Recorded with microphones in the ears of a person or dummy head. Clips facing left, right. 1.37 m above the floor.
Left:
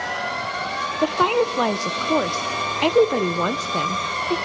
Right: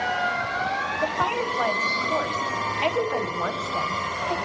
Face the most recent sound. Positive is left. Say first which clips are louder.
# left 9 dB
turn(degrees=60)  # may be behind; listen again after turning